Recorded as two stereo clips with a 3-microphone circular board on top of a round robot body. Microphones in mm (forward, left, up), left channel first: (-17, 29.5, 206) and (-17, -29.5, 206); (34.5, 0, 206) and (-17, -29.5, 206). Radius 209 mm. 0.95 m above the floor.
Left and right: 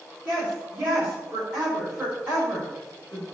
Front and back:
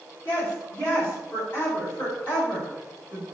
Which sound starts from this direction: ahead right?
A woman speaking, at 0.2 s.